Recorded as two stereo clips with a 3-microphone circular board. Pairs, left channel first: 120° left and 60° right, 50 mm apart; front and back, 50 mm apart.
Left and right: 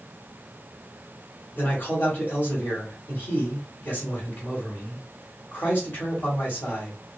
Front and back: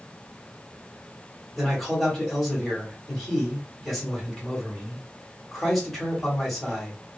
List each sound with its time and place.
1.6 s a man speaking: 85° left, 1.4 m